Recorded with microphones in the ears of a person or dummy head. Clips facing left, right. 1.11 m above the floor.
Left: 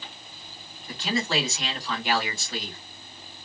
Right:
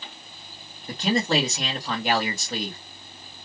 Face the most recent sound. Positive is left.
turn(degrees=-40)  # may be behind; listen again after turning